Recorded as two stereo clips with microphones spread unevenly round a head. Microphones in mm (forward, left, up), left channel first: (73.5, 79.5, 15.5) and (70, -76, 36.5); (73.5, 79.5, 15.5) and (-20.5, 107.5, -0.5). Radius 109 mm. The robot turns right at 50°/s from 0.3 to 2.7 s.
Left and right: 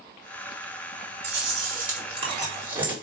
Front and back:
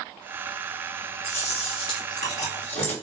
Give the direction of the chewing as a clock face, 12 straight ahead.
3 o'clock.